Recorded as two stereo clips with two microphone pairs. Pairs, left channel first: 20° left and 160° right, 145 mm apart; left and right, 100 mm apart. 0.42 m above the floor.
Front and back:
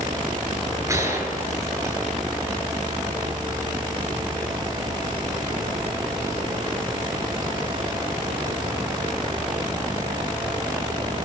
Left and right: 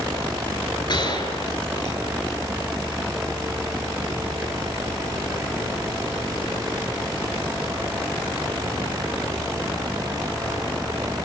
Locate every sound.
0.9 s a gunshot: 135° left, 8 m